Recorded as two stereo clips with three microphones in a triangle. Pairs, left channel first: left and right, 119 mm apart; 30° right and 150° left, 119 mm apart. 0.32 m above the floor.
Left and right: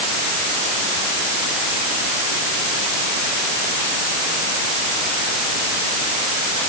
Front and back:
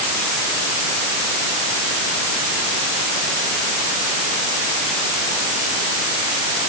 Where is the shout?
No shout in this recording.